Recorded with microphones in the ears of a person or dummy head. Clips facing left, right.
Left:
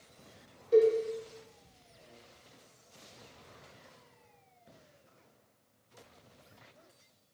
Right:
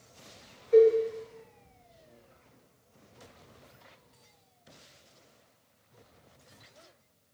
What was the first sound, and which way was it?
A cowbell, 70° left (ahead or behind).